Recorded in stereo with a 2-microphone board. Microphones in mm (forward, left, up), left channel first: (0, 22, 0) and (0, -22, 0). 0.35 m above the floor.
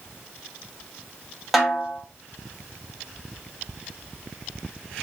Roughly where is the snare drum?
Centre.